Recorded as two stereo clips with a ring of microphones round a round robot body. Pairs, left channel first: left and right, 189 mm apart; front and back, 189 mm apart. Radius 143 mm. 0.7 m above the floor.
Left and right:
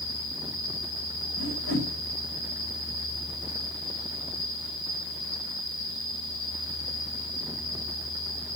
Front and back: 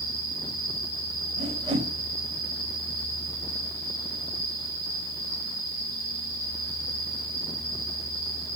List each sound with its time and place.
0.0 s an insect: 75° left, 7.5 m
1.4 s a whoosh: 115° left, 4 m